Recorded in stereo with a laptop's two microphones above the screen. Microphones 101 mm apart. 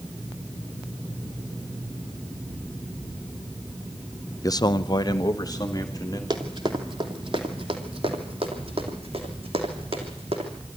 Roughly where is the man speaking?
Left.